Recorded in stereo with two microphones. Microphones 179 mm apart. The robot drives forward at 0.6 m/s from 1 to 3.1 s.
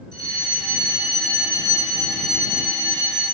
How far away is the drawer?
I don't hear a drawer.